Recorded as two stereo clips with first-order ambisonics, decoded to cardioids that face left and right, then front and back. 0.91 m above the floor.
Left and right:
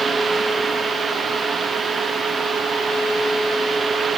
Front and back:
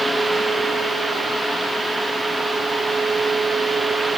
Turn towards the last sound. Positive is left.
No sound to turn to.